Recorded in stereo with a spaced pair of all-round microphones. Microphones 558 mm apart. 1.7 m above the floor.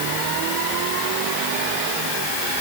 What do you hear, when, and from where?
Only background noise.